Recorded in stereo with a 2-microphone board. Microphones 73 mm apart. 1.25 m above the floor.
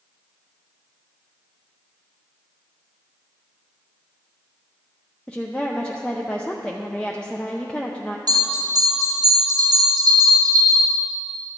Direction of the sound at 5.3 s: 10° left (ahead or behind).